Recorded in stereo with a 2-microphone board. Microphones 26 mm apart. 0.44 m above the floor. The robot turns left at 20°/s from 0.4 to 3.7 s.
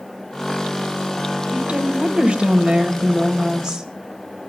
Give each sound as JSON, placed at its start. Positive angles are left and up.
{"t": 1.5, "sound": "a woman speaking", "azimuth_deg": -110, "distance_m": 2.0}